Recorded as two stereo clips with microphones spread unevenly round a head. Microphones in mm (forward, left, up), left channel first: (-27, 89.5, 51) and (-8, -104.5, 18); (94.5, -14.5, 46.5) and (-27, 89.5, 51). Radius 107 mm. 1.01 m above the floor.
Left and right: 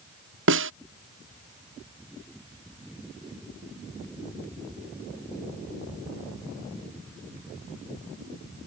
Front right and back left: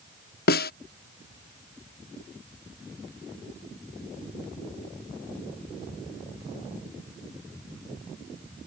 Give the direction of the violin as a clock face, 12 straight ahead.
I don't hear a violin.